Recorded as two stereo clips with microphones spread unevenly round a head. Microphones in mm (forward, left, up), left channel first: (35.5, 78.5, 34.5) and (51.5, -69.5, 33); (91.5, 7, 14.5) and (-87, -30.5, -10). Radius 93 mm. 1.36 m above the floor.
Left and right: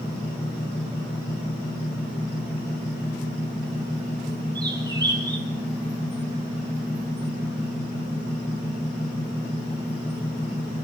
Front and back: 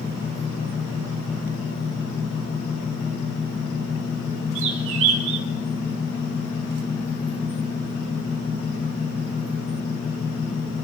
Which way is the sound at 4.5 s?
155° right.